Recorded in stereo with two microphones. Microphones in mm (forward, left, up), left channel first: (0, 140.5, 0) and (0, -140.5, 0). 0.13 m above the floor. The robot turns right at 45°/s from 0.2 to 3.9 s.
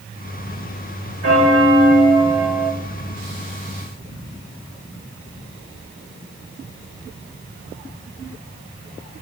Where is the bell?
55° right, 2.5 m; by 2.7 s 10° left, 2.5 m.